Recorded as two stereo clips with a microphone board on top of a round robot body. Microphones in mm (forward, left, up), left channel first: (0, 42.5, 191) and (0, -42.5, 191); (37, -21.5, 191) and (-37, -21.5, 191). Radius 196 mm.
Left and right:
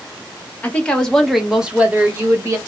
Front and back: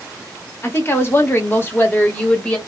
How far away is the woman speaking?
About 1.3 m.